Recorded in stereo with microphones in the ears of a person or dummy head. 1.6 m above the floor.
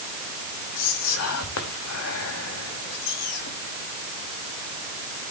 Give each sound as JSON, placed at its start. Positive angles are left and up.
{"t": 0.8, "sound": "whispering", "side_deg": 70, "distance_m": 2.5}